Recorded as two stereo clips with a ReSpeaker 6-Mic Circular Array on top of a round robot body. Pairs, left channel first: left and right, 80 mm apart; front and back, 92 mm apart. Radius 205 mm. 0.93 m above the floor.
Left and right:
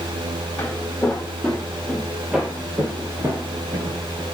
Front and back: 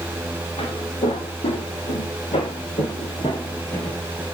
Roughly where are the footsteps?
Ahead.